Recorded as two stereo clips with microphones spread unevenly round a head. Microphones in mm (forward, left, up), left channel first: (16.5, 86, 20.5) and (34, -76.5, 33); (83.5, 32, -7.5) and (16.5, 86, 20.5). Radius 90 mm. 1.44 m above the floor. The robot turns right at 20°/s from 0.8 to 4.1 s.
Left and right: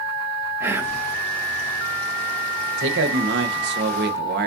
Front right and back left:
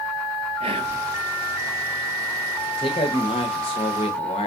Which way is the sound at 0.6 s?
160° right.